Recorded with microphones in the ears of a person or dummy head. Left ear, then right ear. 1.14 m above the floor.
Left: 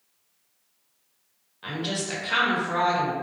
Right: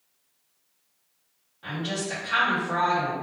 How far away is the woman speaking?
About 1.1 m.